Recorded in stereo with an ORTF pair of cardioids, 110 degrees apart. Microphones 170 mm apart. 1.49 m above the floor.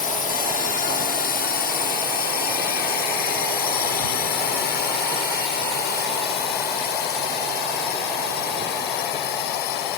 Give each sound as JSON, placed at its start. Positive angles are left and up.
{"t": 0.0, "sound": "a drone", "azimuth_deg": 55}